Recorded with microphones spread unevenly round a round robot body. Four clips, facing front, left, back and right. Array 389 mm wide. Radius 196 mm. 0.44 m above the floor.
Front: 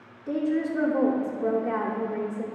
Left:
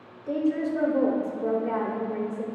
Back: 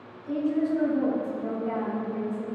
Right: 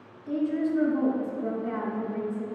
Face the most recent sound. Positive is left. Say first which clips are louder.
# left 1 dB, even
turn(degrees=0)